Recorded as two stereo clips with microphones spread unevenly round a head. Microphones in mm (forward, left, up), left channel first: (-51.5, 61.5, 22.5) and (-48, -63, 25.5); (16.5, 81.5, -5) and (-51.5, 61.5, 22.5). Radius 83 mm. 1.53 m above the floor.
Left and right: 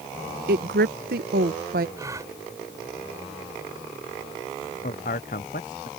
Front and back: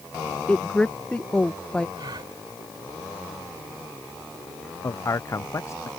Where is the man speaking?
60° left.